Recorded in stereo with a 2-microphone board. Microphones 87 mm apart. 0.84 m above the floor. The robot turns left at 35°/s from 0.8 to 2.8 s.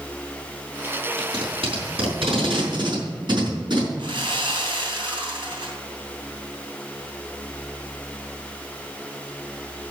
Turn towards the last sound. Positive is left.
turn(degrees=-65)  # may be behind; listen again after turning